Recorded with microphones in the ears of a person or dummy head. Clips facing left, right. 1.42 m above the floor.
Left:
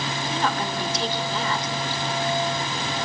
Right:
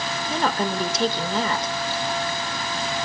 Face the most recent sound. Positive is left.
turn(degrees=-45)  # may be behind; listen again after turning